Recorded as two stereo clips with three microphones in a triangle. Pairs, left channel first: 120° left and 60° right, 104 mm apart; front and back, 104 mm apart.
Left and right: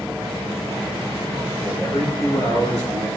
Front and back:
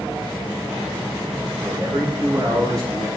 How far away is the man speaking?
About 4.5 m.